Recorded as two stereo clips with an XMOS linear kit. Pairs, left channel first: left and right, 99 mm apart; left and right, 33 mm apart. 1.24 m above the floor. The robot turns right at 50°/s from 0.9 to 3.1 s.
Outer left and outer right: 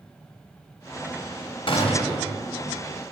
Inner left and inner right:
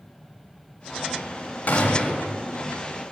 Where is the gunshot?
60° left, 1.5 m; by 2.3 s 90° left, 1.5 m.